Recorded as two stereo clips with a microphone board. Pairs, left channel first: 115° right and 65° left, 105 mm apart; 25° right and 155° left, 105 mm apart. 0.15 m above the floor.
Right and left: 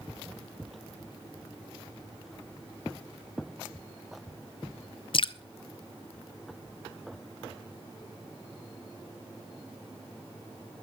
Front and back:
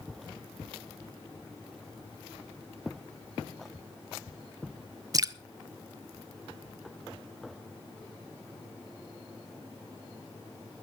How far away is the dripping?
About 0.5 m.